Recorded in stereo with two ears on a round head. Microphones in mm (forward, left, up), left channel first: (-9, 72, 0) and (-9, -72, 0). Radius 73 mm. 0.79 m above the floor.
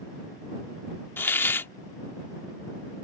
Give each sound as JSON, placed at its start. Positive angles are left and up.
{"t": 1.2, "sound": "a hiss", "side_deg": 15}